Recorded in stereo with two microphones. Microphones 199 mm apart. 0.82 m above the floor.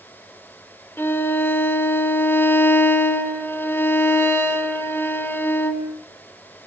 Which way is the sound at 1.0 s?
10° left (ahead or behind).